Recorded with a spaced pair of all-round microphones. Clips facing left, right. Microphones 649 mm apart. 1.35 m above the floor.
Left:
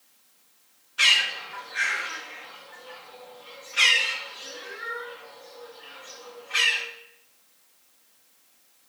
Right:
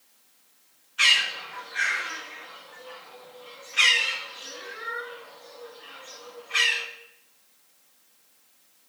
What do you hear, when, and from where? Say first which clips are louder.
1.0 s a bird: even; 65° left (ahead or behind), 1.1 m